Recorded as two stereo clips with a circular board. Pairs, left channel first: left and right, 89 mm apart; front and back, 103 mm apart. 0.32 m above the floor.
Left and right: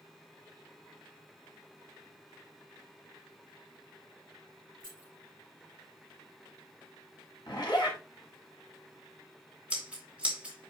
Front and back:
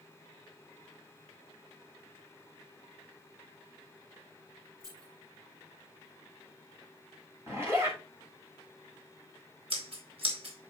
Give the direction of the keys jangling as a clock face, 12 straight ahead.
8 o'clock.